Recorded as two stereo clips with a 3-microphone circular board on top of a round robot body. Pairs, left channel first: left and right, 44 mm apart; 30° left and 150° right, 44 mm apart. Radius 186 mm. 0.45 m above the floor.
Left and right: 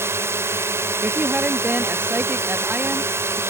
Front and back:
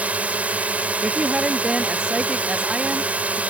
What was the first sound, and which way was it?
A drone, 95° right.